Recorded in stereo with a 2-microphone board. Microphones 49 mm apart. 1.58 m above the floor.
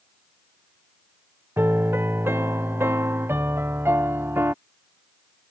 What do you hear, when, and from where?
1.6 s a piano: 50° right (ahead or behind)